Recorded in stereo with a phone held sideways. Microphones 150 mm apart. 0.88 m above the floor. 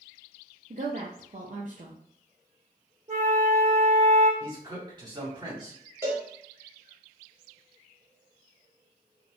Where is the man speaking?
30° right (ahead or behind), 1.9 m.